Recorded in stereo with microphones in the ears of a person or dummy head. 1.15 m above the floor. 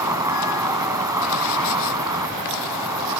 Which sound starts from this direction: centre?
An insect, at 0.0 s.